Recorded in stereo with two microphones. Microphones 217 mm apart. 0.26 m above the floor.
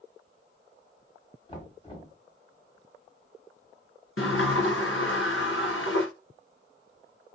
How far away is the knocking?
About 1.3 m.